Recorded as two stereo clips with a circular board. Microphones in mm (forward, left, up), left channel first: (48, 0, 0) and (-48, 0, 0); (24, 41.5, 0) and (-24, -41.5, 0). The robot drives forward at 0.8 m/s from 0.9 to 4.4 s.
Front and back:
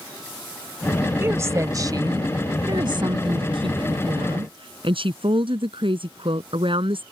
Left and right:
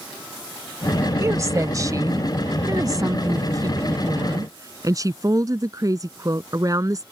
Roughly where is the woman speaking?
Behind right.